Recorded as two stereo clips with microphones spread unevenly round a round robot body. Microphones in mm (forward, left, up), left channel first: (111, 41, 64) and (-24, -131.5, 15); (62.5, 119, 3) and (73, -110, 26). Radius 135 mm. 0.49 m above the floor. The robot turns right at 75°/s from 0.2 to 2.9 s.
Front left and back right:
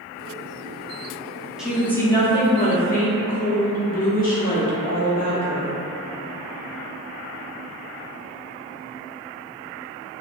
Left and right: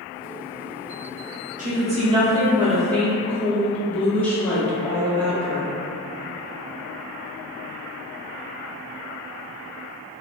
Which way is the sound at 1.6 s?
70° right.